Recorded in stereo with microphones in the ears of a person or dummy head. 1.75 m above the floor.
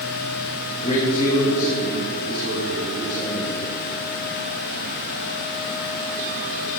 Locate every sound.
0.8 s a man speaking: 35° left (ahead or behind), 2 m; by 3.6 s 5° right (ahead or behind), 5.5 m